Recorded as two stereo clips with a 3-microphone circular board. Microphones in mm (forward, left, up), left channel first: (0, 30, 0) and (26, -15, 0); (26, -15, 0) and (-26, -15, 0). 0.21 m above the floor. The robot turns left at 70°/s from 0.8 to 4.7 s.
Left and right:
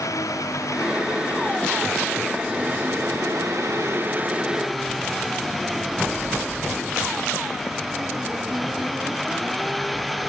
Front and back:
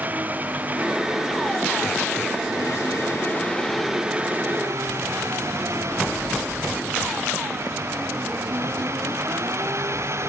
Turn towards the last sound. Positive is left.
turn(degrees=-150)